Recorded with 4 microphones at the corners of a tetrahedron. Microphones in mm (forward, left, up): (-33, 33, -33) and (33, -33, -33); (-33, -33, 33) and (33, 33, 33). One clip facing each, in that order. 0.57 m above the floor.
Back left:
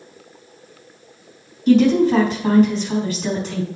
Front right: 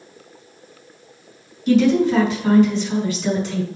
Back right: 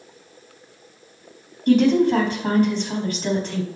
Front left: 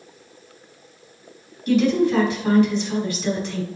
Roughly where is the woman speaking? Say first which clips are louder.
Back left 2 dB, back right 2 dB; behind.